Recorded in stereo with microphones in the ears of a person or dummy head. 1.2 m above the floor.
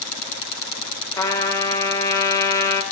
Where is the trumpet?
15° left (ahead or behind), 0.6 m.